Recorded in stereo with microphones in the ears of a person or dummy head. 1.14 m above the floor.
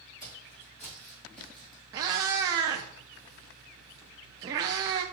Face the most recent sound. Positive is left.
turn(degrees=-15)  # may be behind; listen again after turning